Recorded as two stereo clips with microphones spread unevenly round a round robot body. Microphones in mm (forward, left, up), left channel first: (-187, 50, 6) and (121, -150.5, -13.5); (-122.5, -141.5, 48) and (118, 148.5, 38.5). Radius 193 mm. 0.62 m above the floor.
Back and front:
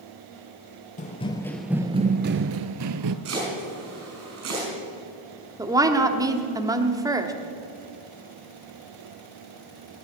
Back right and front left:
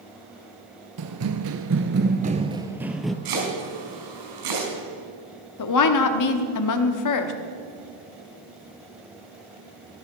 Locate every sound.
1.0 s running footsteps: 85° left, 0.8 m; by 3.1 s 45° right, 0.8 m
3.2 s chopping: 25° left, 5.5 m
5.6 s a woman speaking: 110° right, 1.2 m